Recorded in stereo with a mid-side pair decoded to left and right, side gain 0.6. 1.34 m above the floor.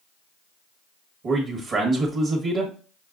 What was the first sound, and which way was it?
A man speaking, 40° right.